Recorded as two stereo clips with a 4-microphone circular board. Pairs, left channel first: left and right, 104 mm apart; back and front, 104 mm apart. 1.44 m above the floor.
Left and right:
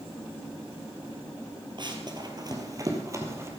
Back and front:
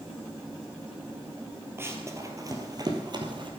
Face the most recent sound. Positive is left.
turn(degrees=-30)